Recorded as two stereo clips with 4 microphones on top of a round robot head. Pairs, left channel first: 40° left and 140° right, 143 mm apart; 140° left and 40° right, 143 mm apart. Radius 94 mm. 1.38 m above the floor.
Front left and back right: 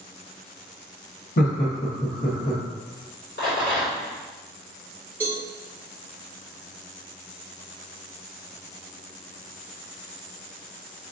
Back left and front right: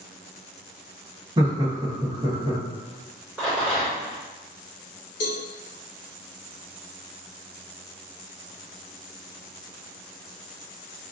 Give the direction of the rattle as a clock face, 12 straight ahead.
11 o'clock.